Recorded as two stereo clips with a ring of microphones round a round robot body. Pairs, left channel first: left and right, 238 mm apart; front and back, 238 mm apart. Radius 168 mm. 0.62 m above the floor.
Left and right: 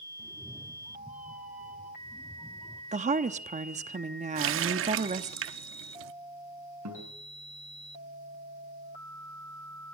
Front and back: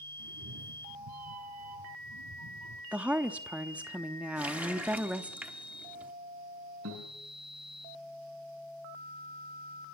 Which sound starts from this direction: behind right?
A guitar, at 6.8 s.